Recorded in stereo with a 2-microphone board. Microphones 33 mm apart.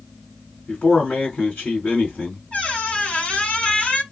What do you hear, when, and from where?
0.7 s a man speaking: 60° left (ahead or behind), 2.5 m
2.5 s a squeak: 45° left (ahead or behind), 0.9 m